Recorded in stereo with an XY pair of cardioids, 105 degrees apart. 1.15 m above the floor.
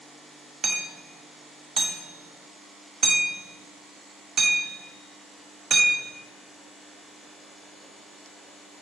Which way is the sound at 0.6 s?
40° right.